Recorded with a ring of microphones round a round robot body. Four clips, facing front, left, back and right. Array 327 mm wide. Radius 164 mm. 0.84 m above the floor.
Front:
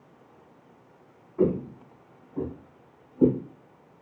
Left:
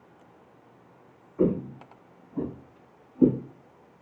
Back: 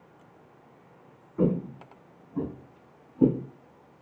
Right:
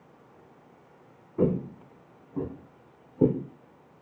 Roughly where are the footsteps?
Behind right.